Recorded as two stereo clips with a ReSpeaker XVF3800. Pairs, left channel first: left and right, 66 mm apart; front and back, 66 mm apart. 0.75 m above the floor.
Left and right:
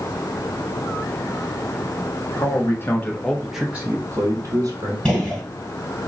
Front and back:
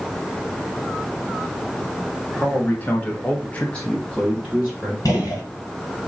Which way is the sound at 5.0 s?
15° left.